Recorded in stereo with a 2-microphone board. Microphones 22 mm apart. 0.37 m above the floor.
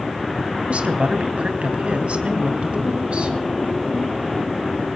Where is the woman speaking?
60° right (ahead or behind), 2.5 m.